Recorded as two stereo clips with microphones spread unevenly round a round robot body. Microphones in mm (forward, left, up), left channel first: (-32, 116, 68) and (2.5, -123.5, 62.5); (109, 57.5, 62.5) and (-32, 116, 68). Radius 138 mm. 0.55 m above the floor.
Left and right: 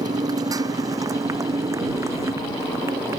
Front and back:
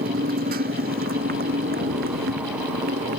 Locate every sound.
0.0 s a motorcycle: 155° right; by 3.2 s 160° right